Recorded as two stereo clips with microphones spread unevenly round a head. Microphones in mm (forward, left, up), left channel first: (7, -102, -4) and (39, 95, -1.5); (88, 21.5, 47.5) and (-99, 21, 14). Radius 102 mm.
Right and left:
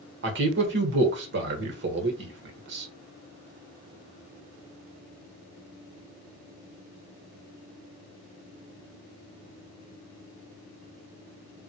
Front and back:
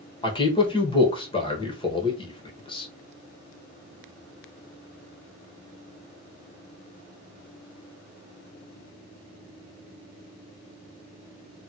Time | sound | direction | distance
0.2 | a man speaking | 65° left | 1.2 m